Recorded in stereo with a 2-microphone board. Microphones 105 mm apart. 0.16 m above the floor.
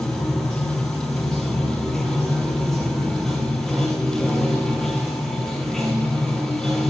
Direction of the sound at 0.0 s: Centre (ahead or behind).